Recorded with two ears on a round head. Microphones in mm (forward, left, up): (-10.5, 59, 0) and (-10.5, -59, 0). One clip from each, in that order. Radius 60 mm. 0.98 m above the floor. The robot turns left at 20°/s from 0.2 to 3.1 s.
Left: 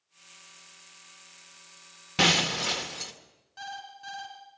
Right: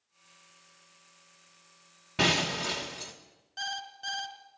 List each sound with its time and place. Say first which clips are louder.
2.2 s breaking glass: left 3 dB; 80° left, 1.7 m; by 3.1 s 60° left (ahead or behind), 1.7 m
3.6 s an alarm clock: right 4 dB; 20° right (ahead or behind), 2.5 m